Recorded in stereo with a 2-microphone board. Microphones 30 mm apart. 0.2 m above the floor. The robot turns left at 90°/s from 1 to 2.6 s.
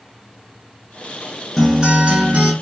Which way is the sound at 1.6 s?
Straight ahead.